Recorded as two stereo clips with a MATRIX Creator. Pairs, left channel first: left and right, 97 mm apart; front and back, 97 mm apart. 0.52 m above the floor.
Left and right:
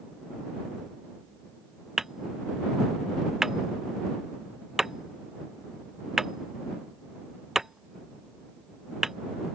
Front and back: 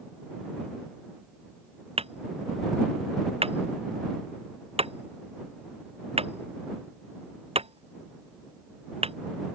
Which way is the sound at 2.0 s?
175° right.